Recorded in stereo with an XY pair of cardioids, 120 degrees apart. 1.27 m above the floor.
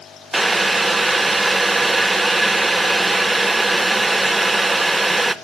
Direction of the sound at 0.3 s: 10° right.